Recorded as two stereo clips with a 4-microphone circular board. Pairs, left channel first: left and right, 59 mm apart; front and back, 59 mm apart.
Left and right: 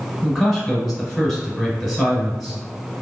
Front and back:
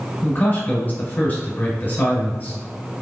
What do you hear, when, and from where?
0.2 s a man speaking: 5° left, 1.6 m